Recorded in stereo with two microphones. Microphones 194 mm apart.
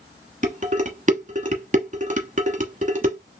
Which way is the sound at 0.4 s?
40° right (ahead or behind).